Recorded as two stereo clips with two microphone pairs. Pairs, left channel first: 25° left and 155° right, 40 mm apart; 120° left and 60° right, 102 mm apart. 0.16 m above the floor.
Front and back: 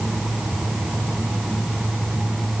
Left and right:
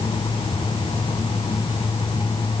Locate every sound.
Only background noise.